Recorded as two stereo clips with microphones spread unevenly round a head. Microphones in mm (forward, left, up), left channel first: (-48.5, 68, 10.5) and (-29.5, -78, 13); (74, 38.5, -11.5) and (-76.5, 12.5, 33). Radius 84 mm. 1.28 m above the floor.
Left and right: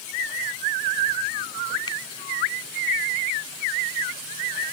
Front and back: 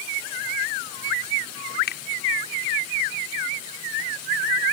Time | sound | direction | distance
1.9 | a finger snap | 30° left | ?